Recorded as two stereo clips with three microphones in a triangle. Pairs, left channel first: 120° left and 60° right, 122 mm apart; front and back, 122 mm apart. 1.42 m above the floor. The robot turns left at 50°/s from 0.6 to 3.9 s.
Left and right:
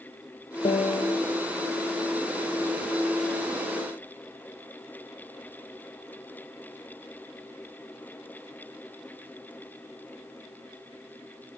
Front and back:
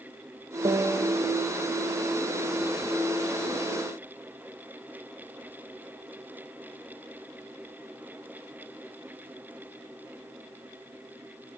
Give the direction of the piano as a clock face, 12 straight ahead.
7 o'clock.